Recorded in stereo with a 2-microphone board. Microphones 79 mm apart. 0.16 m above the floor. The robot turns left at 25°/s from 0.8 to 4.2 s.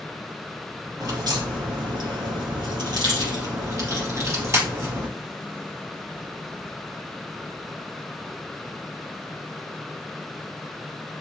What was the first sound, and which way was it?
A crack, 60° right.